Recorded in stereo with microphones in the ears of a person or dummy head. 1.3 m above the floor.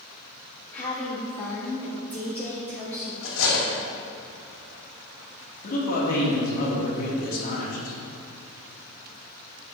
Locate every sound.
0.7 s a woman speaking: 15° left (ahead or behind), 2.5 m
3.2 s cutlery clinking: 65° left (ahead or behind), 1.9 m
5.6 s a man speaking: 40° left (ahead or behind), 2 m